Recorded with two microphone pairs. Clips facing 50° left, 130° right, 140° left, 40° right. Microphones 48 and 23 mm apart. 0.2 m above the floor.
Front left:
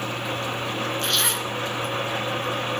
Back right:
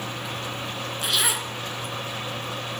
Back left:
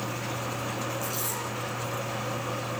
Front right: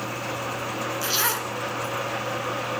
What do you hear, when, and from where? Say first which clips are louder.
1.0 s a zipper: front left 1 dB, front right 7 dB; 45° right, 1.8 m